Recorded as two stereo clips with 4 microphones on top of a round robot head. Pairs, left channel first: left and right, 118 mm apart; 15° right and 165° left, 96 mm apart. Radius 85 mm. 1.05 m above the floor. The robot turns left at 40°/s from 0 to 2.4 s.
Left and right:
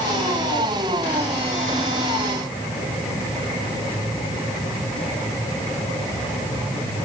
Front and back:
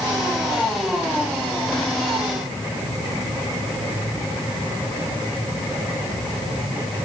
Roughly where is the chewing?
I don't hear chewing.